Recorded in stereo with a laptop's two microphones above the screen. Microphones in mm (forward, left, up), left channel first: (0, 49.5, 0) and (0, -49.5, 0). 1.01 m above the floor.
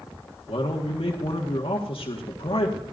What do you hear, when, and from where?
0.5 s a man speaking: 65° left (ahead or behind), 1.6 m